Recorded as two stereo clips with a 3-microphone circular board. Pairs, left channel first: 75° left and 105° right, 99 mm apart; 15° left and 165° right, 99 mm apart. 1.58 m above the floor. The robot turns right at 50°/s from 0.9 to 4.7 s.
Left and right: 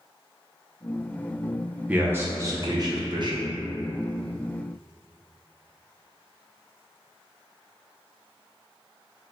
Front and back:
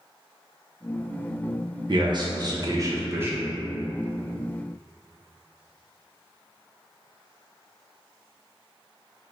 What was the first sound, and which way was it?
A man speaking, 175° right.